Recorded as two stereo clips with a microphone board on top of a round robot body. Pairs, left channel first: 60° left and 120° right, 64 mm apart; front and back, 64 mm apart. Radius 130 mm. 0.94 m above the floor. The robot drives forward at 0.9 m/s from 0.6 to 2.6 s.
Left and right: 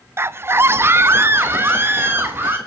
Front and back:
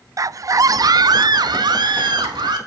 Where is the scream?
165° right, 0.5 m; by 2.6 s straight behind, 2 m.